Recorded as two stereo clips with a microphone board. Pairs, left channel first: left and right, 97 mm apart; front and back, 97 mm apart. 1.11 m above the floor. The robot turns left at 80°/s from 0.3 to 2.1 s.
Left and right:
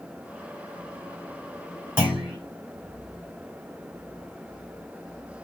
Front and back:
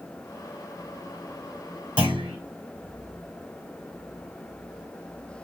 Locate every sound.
2.0 s a clunk: 160° right, 3 m; by 2.4 s 170° right, 3 m